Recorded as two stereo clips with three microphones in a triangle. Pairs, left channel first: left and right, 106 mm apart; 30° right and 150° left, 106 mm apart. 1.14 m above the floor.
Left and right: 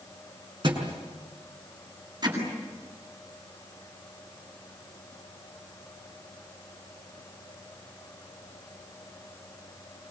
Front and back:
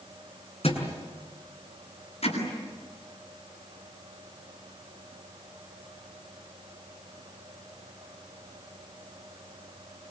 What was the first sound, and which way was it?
A thud, 50° right.